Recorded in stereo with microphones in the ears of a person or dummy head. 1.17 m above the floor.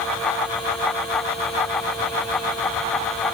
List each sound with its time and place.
Only background noise.